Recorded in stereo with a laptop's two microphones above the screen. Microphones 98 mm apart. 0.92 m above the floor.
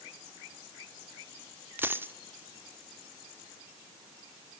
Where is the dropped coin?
20° right (ahead or behind), 1.0 m.